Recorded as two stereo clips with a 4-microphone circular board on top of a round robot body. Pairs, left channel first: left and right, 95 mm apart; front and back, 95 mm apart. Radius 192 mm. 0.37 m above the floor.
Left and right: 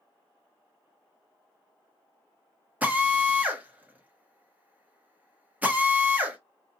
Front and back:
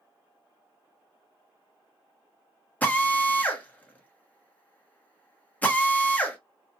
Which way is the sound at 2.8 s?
45° right.